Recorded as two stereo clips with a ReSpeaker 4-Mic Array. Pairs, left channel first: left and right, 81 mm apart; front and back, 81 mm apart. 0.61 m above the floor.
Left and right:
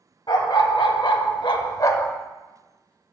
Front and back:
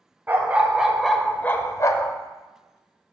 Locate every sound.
0.3 s a dog barking: 115° left, 1.0 m; by 2.1 s 35° left, 0.7 m